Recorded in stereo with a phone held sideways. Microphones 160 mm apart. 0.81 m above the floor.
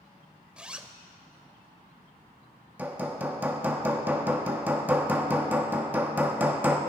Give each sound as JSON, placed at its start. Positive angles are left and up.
{"t": 0.6, "sound": "a zipper", "side_deg": -5, "distance_m": 0.8}
{"t": 2.8, "sound": "hammering", "side_deg": -10, "distance_m": 1.2}